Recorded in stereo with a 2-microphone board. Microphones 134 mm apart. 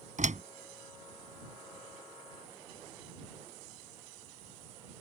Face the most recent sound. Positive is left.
turn(degrees=-70)  # may be behind; listen again after turning